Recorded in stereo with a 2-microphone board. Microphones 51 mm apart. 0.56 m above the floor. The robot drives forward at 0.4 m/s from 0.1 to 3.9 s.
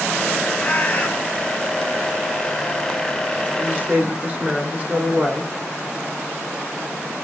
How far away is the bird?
About 1.4 m.